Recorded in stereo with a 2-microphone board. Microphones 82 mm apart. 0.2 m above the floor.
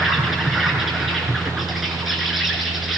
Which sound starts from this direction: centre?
An insect, at 0.0 s.